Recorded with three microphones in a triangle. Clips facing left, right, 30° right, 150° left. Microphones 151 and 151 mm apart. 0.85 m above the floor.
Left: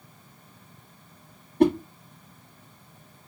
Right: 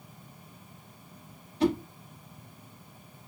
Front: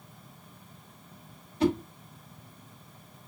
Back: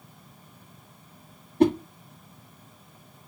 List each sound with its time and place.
1.6 s a whoosh: 120° left, 0.9 m